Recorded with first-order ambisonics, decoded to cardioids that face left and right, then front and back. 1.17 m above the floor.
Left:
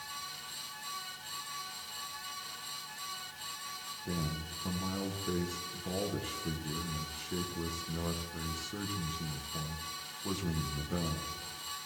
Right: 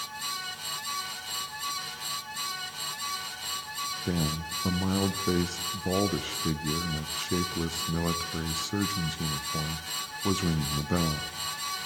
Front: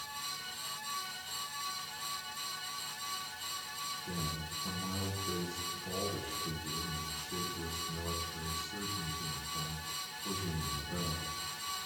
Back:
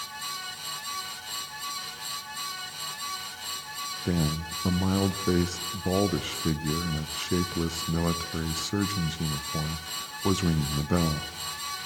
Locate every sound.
4.0 s a man speaking: 145° right, 0.6 m